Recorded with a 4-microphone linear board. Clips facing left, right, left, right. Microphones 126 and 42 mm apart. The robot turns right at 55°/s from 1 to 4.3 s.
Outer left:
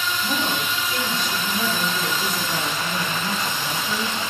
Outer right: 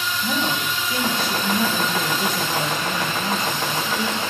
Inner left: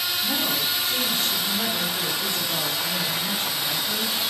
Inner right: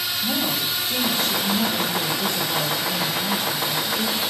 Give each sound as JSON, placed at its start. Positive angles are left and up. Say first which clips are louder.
{"t": 0.2, "sound": "a woman speaking", "louder": "outer right 3 dB, inner right 3 dB", "azimuth_deg": -155, "distance_m": 5.0}